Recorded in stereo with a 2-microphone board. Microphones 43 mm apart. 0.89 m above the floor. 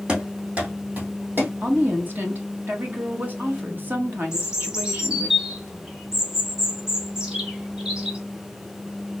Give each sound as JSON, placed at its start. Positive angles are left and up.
{"t": 0.1, "sound": "running footsteps", "side_deg": -25, "distance_m": 2.5}
{"t": 1.6, "sound": "a woman speaking", "side_deg": -45, "distance_m": 1.5}
{"t": 4.3, "sound": "a bird", "side_deg": -20, "distance_m": 1.8}